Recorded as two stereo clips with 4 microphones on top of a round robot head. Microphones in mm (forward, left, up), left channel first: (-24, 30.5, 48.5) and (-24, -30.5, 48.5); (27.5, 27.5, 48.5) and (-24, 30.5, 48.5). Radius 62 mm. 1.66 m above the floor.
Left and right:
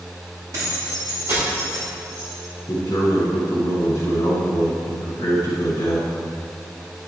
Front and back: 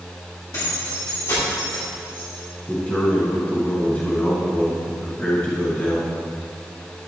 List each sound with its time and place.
0.5 s keys jangling: 40° right, 3 m; by 2.4 s 20° right, 3 m
2.7 s a man speaking: 60° left, 2.5 m